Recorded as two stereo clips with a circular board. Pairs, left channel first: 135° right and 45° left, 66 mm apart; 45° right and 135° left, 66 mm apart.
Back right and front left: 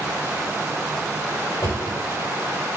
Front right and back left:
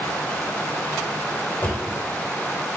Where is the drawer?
105° right, 2 m.